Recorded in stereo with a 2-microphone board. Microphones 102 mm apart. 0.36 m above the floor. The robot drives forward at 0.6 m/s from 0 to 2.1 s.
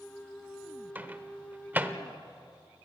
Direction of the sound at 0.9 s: 20° right (ahead or behind).